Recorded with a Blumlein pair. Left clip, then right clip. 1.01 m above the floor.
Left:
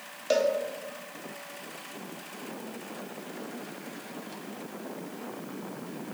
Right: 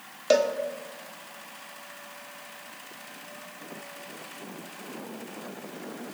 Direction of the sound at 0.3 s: 15° right.